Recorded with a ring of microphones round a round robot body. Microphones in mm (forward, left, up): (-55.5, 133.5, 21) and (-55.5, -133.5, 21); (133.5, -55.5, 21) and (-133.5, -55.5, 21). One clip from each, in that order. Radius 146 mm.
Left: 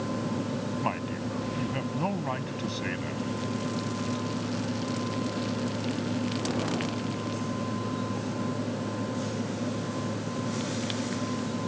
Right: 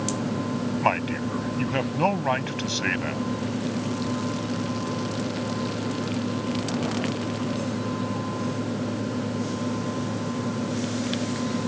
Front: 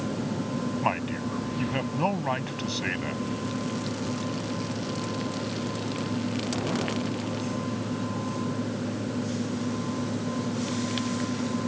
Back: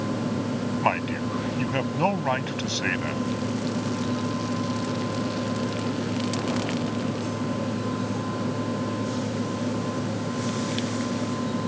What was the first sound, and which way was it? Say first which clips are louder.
A man speaking: right 11 dB, back 4 dB; 115° right.